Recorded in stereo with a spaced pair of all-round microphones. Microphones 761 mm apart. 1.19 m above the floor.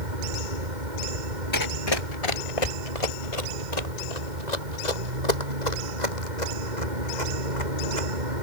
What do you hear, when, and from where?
0.0 s a vehicle: 70° right (ahead or behind)
1.5 s running footsteps: 25° left (ahead or behind); by 8.1 s 65° left (ahead or behind)